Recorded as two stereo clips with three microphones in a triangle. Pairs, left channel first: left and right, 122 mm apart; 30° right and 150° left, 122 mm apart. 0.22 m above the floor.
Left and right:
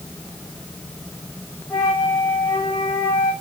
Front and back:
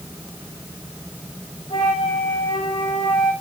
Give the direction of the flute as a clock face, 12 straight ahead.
12 o'clock.